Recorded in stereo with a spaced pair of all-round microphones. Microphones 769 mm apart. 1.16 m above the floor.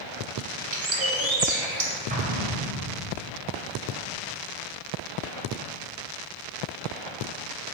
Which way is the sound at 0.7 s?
35° right (ahead or behind).